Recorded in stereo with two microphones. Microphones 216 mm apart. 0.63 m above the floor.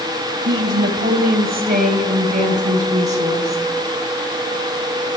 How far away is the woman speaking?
About 3 m.